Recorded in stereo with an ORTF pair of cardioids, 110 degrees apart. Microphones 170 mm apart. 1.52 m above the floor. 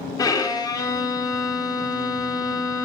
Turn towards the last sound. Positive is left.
turn(degrees=25)